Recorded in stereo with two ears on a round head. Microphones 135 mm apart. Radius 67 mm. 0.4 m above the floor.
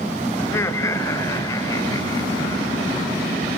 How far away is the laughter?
About 1.3 m.